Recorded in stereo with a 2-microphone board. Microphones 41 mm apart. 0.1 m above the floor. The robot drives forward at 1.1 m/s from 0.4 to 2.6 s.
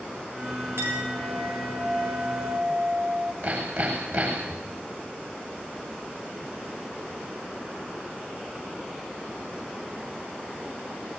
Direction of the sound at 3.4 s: 60° right (ahead or behind).